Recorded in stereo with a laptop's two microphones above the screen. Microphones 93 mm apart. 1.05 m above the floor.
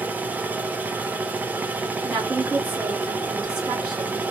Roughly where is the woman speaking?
Right.